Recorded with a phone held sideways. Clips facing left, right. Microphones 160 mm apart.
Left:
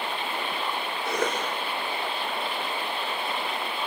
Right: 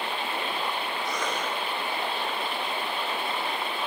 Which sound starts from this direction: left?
A cough, at 1.1 s.